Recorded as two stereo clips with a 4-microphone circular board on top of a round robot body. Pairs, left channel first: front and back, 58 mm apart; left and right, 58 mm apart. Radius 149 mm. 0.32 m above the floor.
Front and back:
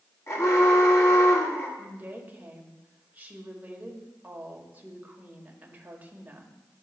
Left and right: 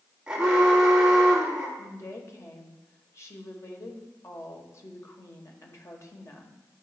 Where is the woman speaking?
120° left, 1.6 m.